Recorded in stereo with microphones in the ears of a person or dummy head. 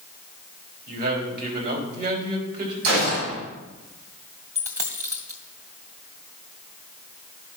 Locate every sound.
0.9 s a man speaking: 50° right (ahead or behind), 3.5 m
2.8 s a gunshot: 80° right, 5.5 m
4.5 s a dropped coin: 15° right (ahead or behind), 2.0 m